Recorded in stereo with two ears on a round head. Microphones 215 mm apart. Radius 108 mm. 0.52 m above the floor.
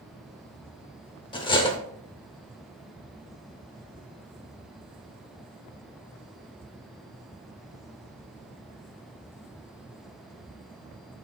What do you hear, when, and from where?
1.3 s cutlery clinking: 20° left (ahead or behind), 0.7 m